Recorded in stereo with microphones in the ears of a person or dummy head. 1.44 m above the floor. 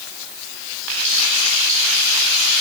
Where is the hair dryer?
No hair dryer in this recording.